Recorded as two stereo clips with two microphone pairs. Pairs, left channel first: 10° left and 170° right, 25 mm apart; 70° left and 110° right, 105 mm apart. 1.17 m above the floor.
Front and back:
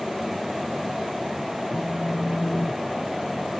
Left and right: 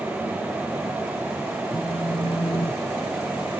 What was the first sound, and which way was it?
A phone buzzing, 25° left.